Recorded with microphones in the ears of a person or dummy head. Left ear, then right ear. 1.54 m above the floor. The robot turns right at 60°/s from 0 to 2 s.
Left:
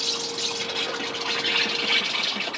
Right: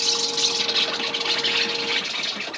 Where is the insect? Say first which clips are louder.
Right 5 dB; 115° right, 1.0 m; by 2.6 s 5° left, 1.0 m.